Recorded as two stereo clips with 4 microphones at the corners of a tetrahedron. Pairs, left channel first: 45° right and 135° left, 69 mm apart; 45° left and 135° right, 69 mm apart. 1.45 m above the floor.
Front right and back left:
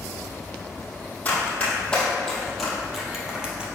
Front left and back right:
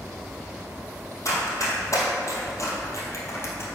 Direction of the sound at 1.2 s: 20° left.